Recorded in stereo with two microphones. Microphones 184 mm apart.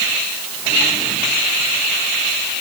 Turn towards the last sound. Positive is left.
No sound to turn to.